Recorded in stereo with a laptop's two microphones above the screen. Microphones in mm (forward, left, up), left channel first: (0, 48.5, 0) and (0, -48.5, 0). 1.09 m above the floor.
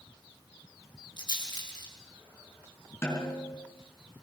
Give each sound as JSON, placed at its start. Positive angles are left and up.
{"t": 1.2, "sound": "a rattle", "side_deg": 50, "distance_m": 4.0}
{"t": 3.0, "sound": "a snare drum", "side_deg": 25, "distance_m": 5.5}